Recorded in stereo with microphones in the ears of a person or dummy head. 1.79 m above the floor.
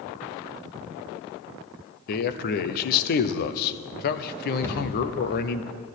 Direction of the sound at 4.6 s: 15° left (ahead or behind).